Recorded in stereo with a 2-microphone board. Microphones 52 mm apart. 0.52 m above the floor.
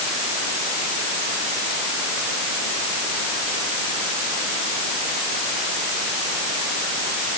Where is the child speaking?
I don't hear a child speaking.